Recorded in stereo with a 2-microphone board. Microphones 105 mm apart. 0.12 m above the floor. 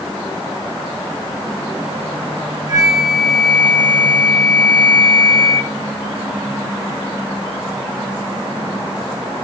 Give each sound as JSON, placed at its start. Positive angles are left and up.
{"t": 2.7, "sound": "a flute", "side_deg": -35, "distance_m": 1.9}